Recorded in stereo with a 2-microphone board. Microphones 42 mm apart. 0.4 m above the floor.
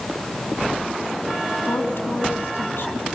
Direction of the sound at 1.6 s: 70° left (ahead or behind).